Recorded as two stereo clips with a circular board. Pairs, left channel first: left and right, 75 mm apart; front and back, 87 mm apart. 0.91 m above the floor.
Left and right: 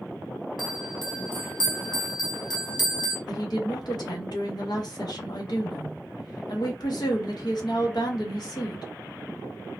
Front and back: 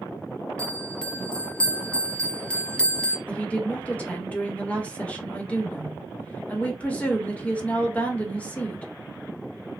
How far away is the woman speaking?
About 1.0 m.